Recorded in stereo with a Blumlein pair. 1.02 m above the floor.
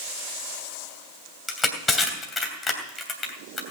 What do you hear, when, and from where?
1.5 s crushing: 10° left, 3 m